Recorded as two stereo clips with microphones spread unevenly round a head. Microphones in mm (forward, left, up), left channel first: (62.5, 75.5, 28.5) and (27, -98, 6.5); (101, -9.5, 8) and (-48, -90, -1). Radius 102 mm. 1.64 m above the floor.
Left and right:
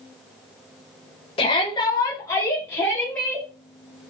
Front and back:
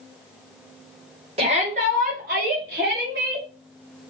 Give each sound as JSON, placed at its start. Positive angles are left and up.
{"t": 1.4, "sound": "a shout", "azimuth_deg": 145, "distance_m": 2.0}